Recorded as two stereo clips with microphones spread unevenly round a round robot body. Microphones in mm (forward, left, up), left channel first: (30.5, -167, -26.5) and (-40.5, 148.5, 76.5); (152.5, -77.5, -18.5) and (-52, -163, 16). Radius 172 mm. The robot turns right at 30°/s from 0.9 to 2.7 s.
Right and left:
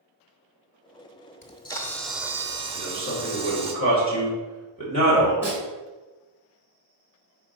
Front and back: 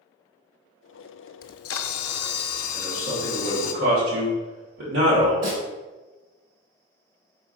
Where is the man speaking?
135° right, 3 m.